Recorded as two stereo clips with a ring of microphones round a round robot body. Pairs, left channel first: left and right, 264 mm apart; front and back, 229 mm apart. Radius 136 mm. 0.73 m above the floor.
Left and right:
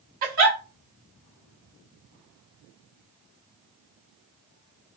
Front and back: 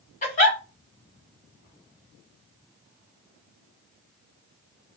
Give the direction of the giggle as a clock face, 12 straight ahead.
2 o'clock.